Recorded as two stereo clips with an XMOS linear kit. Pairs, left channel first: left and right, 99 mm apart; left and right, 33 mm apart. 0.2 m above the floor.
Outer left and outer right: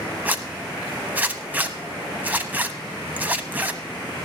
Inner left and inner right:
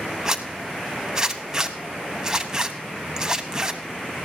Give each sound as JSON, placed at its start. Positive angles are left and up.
{"t": 0.2, "sound": "a zipper", "side_deg": -20, "distance_m": 0.9}